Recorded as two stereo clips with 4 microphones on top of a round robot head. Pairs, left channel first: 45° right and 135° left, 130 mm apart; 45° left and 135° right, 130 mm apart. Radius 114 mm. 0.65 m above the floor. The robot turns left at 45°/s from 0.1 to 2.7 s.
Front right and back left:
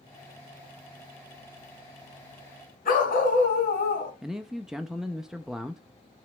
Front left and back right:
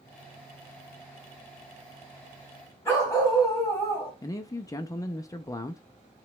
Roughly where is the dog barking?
Ahead right.